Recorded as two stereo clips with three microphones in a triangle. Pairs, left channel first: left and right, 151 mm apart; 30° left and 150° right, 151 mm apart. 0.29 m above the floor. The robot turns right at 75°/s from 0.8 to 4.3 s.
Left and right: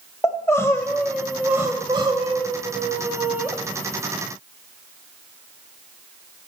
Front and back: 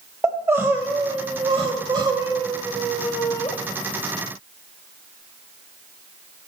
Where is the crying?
145° left, 1.1 m; by 3.5 s 5° right, 1.1 m.